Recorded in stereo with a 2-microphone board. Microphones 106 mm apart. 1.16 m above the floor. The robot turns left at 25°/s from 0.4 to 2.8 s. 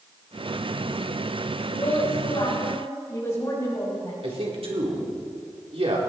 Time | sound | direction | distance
1.7 | a woman speaking | 55° left (ahead or behind) | 6 m
4.2 | a man speaking | 65° right (ahead or behind) | 3.5 m